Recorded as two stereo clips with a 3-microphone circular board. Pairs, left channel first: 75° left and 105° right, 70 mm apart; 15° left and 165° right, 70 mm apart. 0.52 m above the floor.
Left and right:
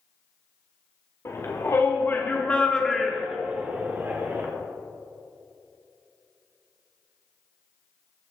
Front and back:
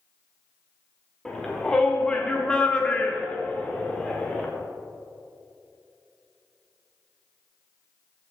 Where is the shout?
95° left, 1.5 m; by 4.5 s 55° right, 1.6 m.